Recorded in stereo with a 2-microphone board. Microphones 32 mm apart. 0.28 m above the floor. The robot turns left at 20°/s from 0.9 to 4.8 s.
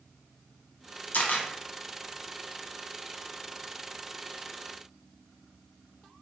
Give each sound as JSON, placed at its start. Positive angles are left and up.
{"t": 1.1, "sound": "a camera shutter", "side_deg": 65, "distance_m": 0.6}